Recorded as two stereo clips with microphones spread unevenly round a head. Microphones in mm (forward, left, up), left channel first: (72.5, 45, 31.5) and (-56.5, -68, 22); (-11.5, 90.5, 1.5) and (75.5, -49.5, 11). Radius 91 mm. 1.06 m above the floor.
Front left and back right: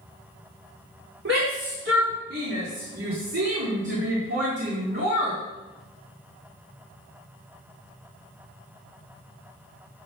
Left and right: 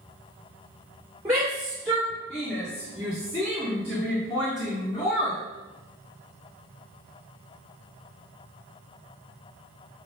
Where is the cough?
No cough in this recording.